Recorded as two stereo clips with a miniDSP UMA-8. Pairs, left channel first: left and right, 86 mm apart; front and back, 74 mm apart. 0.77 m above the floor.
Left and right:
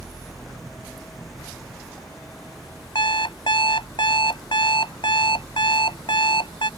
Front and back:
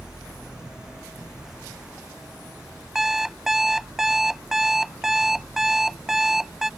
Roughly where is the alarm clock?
Left.